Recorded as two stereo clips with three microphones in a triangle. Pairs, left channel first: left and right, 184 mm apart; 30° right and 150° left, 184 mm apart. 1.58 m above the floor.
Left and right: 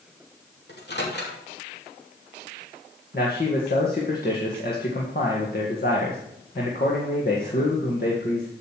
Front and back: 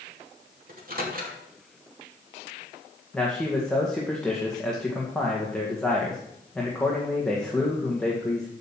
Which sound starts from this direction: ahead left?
A man speaking, at 3.1 s.